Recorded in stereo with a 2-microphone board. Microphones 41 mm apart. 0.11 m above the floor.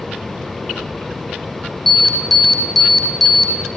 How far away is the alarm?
About 5 m.